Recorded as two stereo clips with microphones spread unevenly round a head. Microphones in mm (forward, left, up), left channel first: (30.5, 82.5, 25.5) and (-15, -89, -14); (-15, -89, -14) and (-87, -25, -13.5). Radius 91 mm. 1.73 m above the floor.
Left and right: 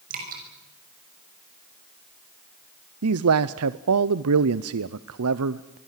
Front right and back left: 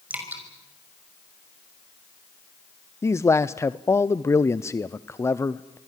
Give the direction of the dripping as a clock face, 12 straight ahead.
5 o'clock.